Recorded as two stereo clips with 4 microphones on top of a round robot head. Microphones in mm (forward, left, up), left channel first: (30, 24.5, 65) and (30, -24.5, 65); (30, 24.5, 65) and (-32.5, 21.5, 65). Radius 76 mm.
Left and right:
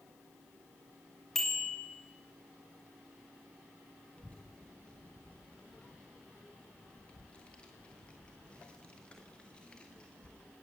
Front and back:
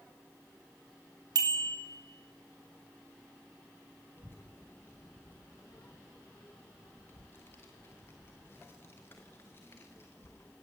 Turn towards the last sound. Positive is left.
turn(degrees=35)